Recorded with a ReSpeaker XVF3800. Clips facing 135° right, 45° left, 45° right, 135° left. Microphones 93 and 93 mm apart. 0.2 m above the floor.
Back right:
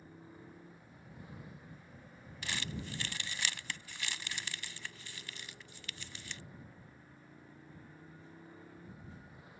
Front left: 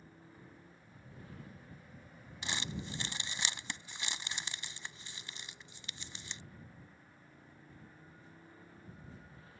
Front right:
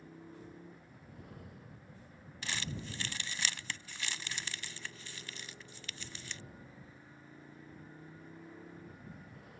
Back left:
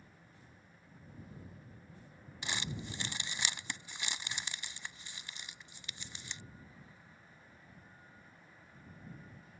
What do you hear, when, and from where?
0.0 s a motorcycle: 60° right
2.4 s crumpling: 85° left